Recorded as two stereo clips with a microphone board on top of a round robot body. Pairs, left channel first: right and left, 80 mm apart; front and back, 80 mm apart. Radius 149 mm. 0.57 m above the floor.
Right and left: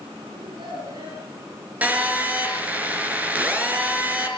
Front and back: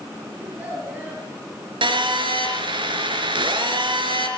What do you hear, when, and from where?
0.4 s a child speaking: 105° left, 8.5 m
1.8 s a phone buzzing: 165° left, 4 m